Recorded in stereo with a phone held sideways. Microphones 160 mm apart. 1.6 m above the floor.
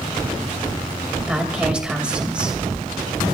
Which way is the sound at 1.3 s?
5° right (ahead or behind).